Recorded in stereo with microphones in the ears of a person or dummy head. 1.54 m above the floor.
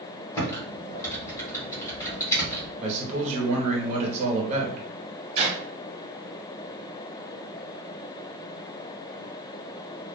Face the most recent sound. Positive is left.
turn(degrees=-25)  # may be behind; listen again after turning